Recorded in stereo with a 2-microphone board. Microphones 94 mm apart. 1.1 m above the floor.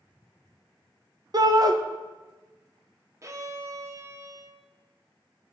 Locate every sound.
1.3 s a shout: 45° right (ahead or behind), 0.6 m
3.2 s a violin: 35° right (ahead or behind), 0.6 m